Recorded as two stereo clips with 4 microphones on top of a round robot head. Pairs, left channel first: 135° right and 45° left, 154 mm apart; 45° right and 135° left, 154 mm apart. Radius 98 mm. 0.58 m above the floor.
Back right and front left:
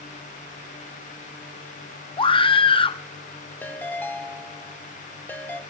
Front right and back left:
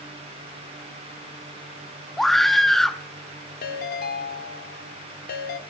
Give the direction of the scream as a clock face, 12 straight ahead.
4 o'clock.